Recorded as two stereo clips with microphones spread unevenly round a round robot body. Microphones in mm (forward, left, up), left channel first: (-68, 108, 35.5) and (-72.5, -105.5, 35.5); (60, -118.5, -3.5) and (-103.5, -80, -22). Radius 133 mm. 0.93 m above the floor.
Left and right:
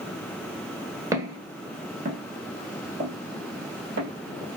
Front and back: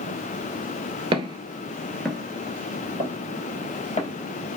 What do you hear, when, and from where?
1.1 s footsteps: 155° right, 1.0 m; by 4.1 s 50° right, 1.6 m